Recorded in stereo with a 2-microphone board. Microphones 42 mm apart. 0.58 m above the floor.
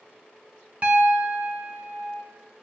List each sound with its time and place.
0.8 s a piano: 35° right (ahead or behind), 0.9 m